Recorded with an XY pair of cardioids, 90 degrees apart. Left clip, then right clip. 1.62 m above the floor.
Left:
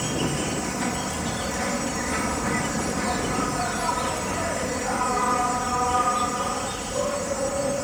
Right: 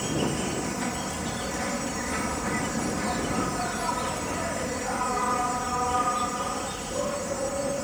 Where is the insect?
30° left.